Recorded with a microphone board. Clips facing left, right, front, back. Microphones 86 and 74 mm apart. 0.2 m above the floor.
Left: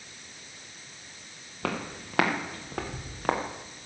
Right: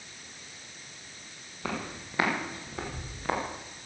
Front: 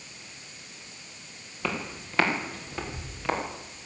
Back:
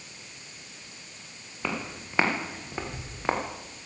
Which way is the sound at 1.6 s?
100° left.